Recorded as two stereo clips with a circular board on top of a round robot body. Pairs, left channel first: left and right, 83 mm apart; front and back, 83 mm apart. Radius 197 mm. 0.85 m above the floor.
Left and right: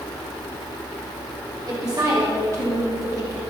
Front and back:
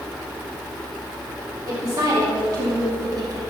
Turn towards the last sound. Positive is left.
turn(degrees=-140)